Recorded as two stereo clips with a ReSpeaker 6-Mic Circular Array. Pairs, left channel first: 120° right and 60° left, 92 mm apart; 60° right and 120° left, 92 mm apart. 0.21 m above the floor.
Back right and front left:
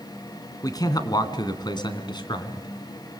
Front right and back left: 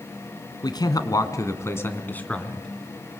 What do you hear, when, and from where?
0.6 s a man speaking: 85° right, 2.5 m; by 2.7 s 140° right, 2.5 m